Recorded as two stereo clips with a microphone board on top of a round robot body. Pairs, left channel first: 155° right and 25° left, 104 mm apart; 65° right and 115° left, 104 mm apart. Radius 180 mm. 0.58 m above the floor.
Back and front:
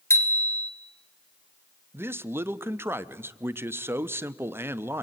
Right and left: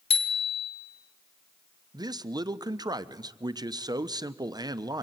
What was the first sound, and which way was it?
A bicycle bell, 90° right.